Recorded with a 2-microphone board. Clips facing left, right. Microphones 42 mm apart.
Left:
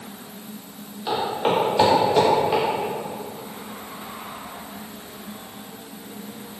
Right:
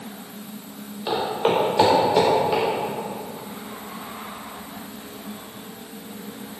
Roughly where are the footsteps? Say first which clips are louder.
Right 1 dB; centre.